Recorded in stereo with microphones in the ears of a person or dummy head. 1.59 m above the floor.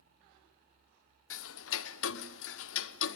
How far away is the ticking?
About 0.9 m.